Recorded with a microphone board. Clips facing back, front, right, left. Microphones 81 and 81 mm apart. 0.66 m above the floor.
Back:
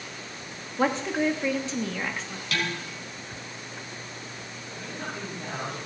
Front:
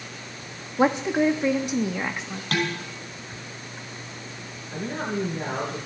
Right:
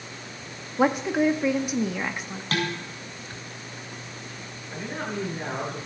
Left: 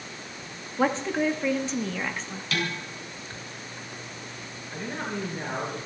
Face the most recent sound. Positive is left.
turn(degrees=-5)